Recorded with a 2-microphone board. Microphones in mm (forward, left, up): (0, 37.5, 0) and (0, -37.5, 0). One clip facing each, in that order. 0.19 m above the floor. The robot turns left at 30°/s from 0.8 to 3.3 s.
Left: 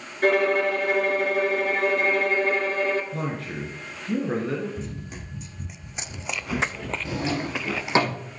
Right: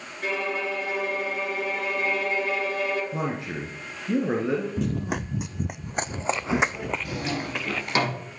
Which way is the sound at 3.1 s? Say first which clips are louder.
Right 1 dB; 20° right (ahead or behind).